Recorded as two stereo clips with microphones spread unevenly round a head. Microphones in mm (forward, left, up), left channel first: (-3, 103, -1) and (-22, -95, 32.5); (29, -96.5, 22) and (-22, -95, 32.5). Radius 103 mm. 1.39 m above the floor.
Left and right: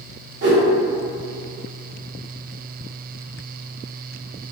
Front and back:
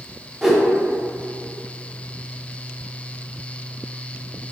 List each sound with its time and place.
0.4 s a whoosh: 105° right, 0.7 m